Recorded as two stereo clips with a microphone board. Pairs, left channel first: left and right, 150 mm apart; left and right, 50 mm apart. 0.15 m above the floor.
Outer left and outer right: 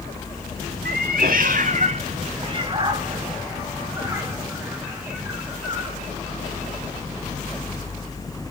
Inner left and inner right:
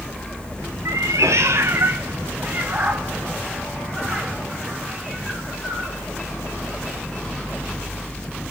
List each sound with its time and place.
0.8 s a cat meowing: 85° right, 1.1 m; by 6.0 s 10° right (ahead or behind), 4.5 m